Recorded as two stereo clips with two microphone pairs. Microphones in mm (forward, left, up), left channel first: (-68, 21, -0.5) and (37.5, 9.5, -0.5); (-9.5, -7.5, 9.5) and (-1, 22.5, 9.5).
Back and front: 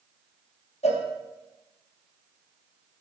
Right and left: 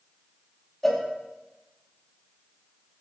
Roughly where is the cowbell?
Behind.